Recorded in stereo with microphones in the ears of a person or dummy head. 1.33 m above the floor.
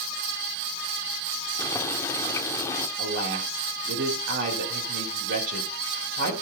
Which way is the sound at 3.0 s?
60° right (ahead or behind).